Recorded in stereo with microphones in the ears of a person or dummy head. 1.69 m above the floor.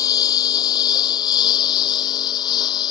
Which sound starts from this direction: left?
A lawn mower, at 0.0 s.